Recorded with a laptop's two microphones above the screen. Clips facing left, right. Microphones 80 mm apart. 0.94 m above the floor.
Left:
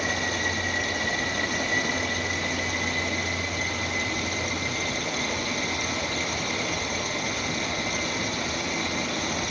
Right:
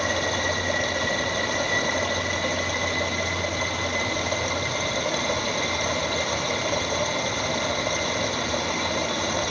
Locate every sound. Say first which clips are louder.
0.0 s running water: right 3 dB; 55° right (ahead or behind), 2.5 m